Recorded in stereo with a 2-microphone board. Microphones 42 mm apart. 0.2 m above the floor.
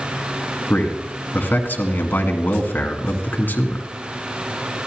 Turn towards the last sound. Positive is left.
turn(degrees=50)  # may be behind; listen again after turning